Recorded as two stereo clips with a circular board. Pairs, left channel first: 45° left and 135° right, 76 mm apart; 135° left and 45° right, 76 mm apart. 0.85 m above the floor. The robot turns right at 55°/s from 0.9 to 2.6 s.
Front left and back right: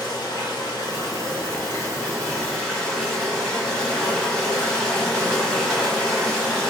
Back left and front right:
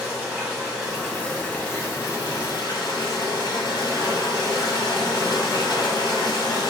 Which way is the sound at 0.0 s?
30° left.